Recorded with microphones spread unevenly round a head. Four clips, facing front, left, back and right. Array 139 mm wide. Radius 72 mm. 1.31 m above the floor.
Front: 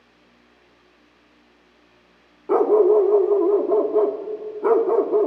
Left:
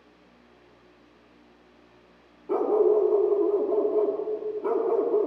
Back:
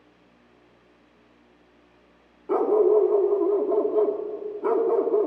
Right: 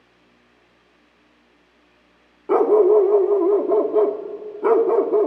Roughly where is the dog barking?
Ahead right.